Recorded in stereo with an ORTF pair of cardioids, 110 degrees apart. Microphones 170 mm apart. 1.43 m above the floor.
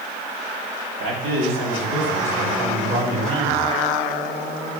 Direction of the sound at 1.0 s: 65° right.